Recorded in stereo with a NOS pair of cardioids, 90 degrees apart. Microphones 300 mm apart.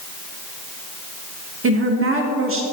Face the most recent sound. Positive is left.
turn(degrees=-45)